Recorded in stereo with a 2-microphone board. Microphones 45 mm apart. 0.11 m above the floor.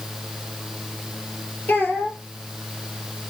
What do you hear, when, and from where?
1.7 s a child speaking: 40° left (ahead or behind), 1.8 m